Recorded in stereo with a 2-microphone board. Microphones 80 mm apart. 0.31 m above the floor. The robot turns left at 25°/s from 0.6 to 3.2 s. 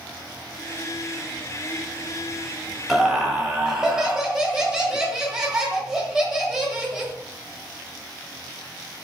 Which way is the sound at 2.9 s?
Centre (ahead or behind).